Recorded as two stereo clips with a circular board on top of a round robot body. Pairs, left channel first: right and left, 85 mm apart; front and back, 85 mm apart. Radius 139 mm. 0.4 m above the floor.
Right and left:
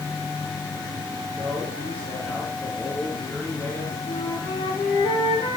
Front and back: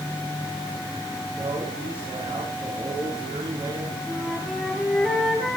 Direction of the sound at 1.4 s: 160° right.